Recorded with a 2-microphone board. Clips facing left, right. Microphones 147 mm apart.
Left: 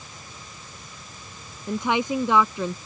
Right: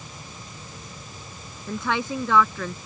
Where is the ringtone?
I don't hear a ringtone.